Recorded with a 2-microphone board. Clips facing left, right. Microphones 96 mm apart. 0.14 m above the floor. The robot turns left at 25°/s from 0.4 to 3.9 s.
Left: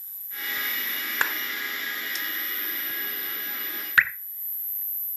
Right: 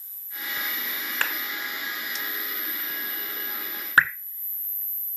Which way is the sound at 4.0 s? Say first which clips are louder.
Right 2 dB; 35° right (ahead or behind).